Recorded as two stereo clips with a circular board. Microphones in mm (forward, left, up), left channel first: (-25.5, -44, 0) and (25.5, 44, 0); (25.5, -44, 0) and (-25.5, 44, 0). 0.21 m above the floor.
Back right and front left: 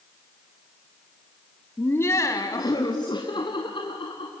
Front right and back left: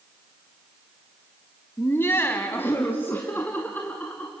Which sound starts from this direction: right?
Laughter, at 1.8 s.